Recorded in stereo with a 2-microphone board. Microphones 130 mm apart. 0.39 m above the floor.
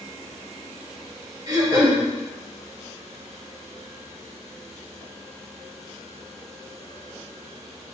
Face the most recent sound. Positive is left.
turn(degrees=-25)  # may be behind; listen again after turning